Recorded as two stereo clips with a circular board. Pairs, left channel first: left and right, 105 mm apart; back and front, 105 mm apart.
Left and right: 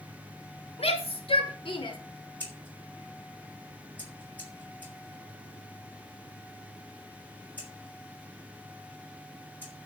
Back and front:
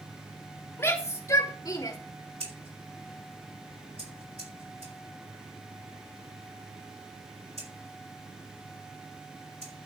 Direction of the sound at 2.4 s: 20° left.